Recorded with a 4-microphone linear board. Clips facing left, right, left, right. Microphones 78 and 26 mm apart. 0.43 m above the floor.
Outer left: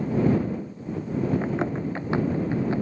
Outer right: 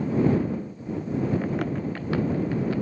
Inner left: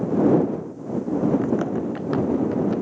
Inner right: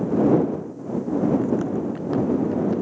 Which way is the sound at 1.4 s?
25° left (ahead or behind).